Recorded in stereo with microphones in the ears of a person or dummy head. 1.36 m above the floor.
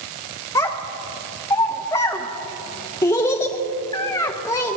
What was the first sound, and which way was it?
A child speaking, 20° left (ahead or behind).